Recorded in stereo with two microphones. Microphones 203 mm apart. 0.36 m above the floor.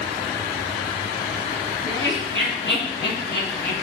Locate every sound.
1.9 s laughter: 75° left (ahead or behind), 3 m; by 3.7 s 55° left (ahead or behind), 3 m